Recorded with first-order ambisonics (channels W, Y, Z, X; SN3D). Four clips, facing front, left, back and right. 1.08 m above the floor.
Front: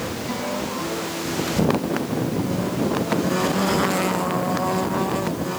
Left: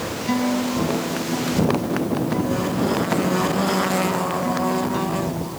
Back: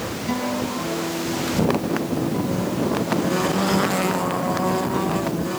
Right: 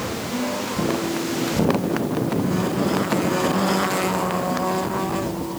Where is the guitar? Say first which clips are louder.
Left 8 dB, back 5 dB; 105° left, 5 m.